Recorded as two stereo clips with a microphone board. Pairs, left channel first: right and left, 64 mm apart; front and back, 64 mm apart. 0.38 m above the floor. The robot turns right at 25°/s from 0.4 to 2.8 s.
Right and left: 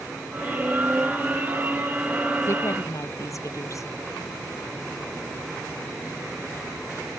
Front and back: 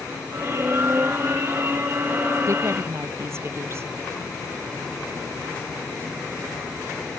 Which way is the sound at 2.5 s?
140° right.